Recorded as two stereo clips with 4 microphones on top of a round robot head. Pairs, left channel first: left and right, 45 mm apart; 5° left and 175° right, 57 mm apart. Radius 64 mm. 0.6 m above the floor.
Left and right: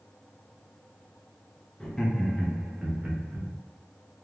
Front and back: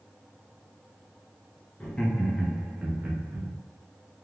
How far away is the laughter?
About 0.8 m.